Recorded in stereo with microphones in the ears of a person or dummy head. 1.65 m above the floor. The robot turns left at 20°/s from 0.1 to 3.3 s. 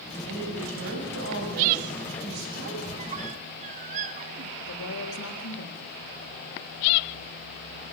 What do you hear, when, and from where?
0.3 s a woman speaking: 75° right, 8 m; by 2.8 s 125° right, 8 m
2.9 s a squeak: 35° right (ahead or behind), 1.1 m; by 4.5 s 40° right (ahead or behind), 1.1 m
4.6 s a woman speaking: 85° left, 4 m